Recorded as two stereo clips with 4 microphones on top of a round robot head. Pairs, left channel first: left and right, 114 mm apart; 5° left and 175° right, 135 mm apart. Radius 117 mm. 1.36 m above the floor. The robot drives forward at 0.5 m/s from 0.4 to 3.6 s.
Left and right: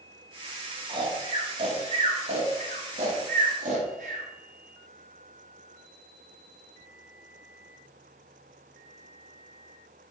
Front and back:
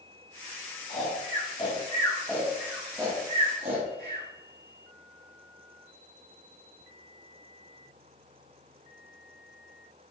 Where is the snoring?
45° right, 1.5 m; by 4.2 s 115° right, 1.3 m.